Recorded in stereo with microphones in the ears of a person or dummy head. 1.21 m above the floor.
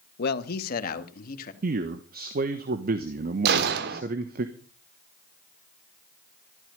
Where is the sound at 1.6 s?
50° right (ahead or behind), 1.1 m.